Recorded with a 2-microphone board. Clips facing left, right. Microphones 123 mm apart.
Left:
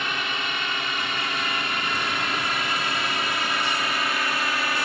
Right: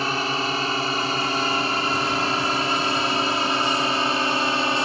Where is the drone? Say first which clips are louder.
Right 5 dB; 35° right (ahead or behind); by 4.9 s 30° right (ahead or behind).